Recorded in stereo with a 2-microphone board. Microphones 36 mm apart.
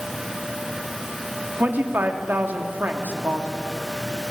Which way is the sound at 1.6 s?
60° right (ahead or behind).